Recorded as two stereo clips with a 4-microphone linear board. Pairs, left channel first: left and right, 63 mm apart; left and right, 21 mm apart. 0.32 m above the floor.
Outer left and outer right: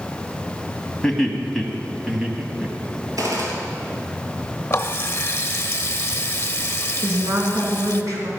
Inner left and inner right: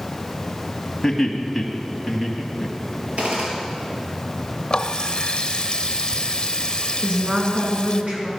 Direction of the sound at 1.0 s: 10° left (ahead or behind).